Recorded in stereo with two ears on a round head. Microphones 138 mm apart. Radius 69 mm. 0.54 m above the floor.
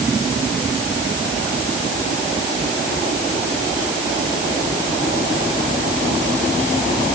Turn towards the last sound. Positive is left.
No sound to turn to.